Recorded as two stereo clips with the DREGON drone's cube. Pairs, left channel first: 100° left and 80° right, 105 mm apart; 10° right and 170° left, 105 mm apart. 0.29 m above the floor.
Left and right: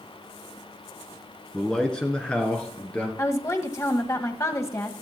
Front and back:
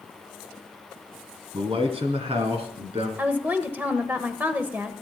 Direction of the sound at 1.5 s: 175° right.